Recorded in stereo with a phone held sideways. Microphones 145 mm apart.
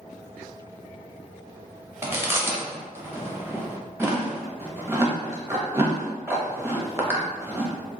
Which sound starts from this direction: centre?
Chewing, at 2.0 s.